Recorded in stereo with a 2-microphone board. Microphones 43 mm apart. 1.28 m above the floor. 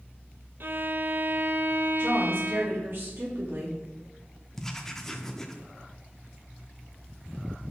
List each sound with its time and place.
0.6 s a violin: 55° right (ahead or behind), 0.7 m
2.0 s a woman speaking: 55° right (ahead or behind), 3.5 m
4.6 s writing: 10° left (ahead or behind), 0.8 m